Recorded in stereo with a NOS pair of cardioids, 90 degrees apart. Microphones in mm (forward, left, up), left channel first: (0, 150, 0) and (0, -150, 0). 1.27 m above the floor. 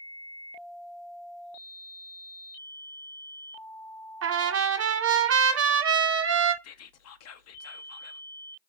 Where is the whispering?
60° left, 0.7 m.